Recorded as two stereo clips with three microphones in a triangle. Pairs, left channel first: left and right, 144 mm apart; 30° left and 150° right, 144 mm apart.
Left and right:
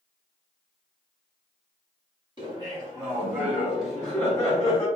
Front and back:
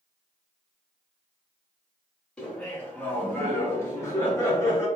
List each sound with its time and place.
2.4 s laughter: 50° right, 1.6 m; by 4.9 s 70° left, 1.2 m